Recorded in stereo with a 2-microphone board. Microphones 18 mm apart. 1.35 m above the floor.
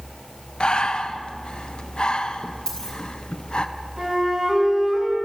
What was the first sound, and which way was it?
Breathing, 65° left (ahead or behind).